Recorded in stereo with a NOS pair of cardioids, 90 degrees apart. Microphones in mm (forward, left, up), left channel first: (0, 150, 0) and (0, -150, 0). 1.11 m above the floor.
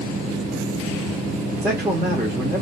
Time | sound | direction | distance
1.6 | a man speaking | 5° right | 2.0 m